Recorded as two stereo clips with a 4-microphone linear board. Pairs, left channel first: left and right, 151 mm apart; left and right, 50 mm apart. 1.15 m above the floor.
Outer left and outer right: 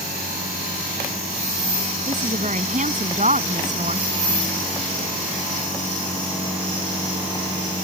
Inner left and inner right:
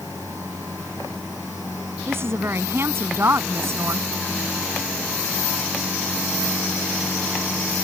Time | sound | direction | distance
2.1 | a woman speaking | 55° right (ahead or behind) | ?